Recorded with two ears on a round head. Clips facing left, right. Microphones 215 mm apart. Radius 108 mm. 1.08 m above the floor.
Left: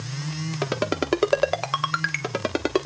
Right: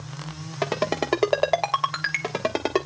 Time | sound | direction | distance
0.6 | a ringtone | 15° left (ahead or behind) | 1.1 m